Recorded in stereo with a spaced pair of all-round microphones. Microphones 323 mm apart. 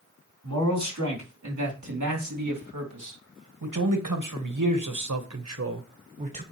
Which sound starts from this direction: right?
A man speaking, at 0.4 s.